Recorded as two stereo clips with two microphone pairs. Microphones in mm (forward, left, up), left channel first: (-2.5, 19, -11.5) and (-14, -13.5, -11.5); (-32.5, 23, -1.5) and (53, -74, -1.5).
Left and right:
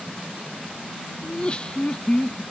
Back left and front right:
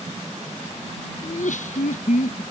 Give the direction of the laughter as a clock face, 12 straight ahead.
8 o'clock.